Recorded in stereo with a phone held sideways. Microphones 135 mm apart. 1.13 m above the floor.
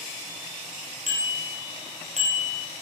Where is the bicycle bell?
70° right (ahead or behind), 4.5 m; by 2.7 s 60° right (ahead or behind), 4.5 m.